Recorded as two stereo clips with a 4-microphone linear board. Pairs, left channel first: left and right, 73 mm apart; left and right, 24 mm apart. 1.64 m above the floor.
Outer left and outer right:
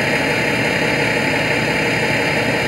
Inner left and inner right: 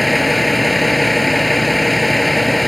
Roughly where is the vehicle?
Centre.